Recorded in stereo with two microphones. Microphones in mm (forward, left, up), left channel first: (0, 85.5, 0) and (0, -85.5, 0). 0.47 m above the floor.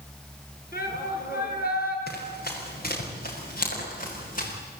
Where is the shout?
65° left (ahead or behind), 6.5 m.